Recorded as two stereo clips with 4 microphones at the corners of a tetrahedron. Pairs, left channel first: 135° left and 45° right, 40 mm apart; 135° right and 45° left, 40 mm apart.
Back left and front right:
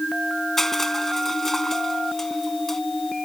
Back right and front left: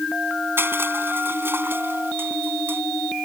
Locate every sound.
0.6 s crushing: 55° left